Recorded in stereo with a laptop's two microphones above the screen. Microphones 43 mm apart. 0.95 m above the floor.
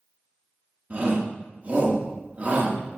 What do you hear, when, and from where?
0.9 s a shout: 35° right (ahead or behind), 1.7 m